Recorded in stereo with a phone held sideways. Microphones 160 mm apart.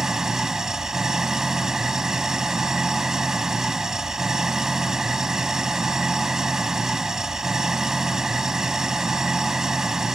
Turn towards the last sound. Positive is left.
turn(degrees=-5)  # may be behind; listen again after turning